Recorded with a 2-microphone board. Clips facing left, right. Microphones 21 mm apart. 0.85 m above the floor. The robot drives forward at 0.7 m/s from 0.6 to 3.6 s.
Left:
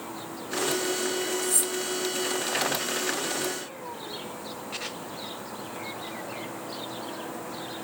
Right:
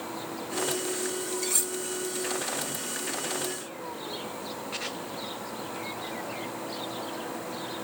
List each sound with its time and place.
1.4 s cutlery clinking: 40° right (ahead or behind), 0.7 m; by 1.7 s 30° right (ahead or behind), 0.9 m